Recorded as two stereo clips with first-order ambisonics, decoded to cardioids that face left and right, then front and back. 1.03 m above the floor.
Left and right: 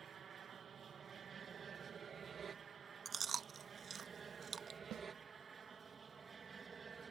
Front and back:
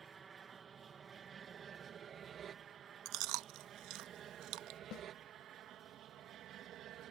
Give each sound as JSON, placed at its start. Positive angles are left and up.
{"t": 0.0, "sound": "an aircraft", "azimuth_deg": -130}
{"t": 3.0, "sound": "chewing", "azimuth_deg": -155}
{"t": 4.9, "sound": "a snare drum", "azimuth_deg": -40}